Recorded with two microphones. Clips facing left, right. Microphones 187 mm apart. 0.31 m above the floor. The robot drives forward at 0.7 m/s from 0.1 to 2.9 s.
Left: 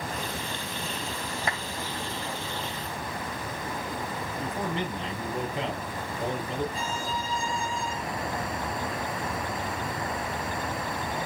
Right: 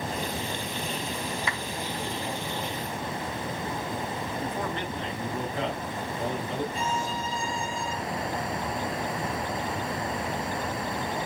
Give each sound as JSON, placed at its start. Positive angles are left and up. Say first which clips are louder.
{"t": 1.5, "sound": "a clap", "louder": "left 1 dB", "side_deg": 45, "distance_m": 3.0}
{"t": 4.4, "sound": "a man speaking", "louder": "left 3 dB", "side_deg": 15, "distance_m": 6.0}
{"t": 6.7, "sound": "a violin", "louder": "right 2 dB", "side_deg": 30, "distance_m": 3.0}